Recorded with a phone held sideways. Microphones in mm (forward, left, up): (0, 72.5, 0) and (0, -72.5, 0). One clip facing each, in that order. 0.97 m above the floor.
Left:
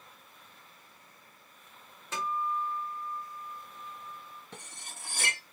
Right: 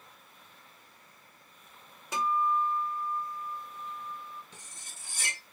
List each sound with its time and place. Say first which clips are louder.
2.1 s a guitar: right 5 dB; 15° right (ahead or behind), 1.6 m
4.5 s cutlery clinking: left 5 dB; 65° left (ahead or behind), 0.6 m